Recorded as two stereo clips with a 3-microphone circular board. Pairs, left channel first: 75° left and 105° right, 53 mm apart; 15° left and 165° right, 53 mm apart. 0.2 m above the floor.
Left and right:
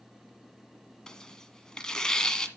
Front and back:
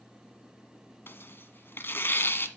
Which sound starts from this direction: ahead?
Tearing paper, at 1.1 s.